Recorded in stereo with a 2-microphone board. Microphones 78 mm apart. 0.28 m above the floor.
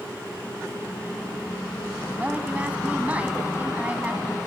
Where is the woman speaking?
20° right (ahead or behind), 2.0 m.